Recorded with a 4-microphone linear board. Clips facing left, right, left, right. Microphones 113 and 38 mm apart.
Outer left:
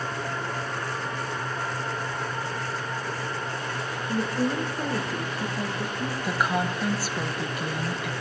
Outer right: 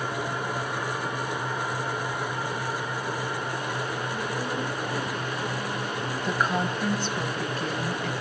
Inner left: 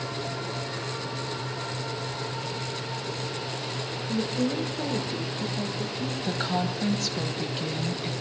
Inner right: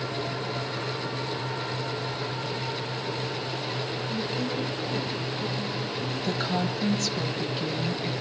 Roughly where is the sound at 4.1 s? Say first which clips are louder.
Outer left 4 dB, inner left 5 dB; left.